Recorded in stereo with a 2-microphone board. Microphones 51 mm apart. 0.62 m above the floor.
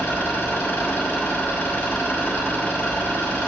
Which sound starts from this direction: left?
An engine running, at 0.0 s.